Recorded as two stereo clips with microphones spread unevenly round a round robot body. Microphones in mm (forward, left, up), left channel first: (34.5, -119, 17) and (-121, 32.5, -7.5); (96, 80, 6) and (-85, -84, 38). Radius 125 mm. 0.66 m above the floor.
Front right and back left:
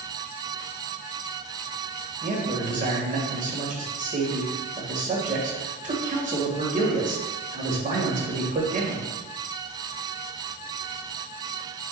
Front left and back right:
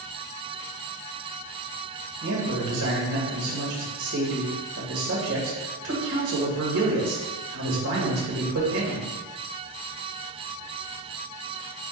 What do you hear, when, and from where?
2.2 s a man speaking: 170° right, 2 m